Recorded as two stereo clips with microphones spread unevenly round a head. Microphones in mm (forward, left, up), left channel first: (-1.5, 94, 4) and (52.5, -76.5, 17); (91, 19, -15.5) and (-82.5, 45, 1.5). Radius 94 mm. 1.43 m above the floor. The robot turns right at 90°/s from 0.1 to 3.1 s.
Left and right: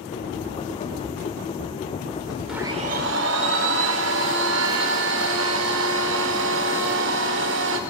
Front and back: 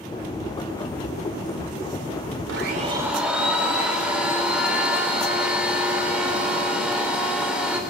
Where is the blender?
160° right, 3.5 m; by 7.8 s 105° right, 3.5 m.